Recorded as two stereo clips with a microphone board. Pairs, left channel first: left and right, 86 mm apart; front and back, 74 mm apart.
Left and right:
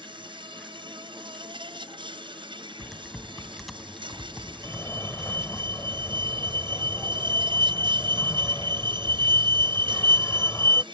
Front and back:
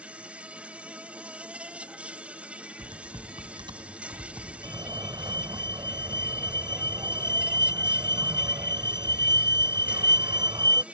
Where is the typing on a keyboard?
Straight behind.